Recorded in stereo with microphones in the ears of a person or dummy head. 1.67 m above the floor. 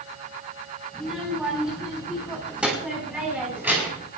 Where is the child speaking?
Centre (ahead or behind), 9 m; by 4.1 s 10° right (ahead or behind), 7 m.